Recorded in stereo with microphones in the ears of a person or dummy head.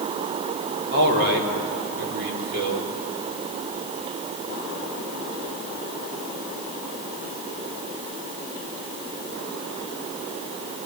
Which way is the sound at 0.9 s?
60° right (ahead or behind).